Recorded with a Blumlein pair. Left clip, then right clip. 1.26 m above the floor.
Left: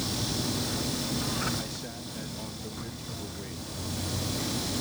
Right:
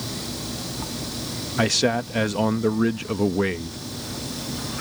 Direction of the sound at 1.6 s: 50° right.